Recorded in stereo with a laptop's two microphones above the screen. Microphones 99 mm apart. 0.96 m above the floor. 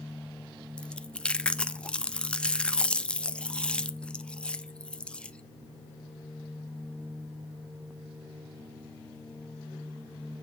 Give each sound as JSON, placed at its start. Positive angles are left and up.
{"t": 0.8, "sound": "chewing", "side_deg": 10, "distance_m": 0.5}